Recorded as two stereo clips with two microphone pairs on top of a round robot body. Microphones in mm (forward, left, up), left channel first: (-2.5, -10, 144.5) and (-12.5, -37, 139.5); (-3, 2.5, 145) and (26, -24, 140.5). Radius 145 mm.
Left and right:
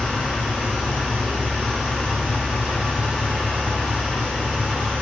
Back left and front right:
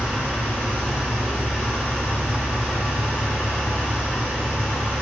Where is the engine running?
105° right, 4 m.